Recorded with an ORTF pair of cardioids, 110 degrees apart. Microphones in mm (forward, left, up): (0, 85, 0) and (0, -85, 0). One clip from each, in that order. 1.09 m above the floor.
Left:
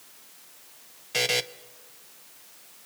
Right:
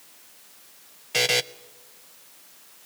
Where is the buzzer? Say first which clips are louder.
Right 3 dB; 15° right, 0.7 m.